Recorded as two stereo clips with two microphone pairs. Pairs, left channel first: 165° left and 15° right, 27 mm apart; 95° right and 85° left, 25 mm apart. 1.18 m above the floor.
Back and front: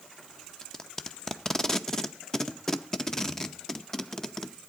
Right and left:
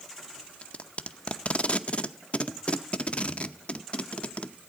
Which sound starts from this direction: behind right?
Tape being pulled, at 0.6 s.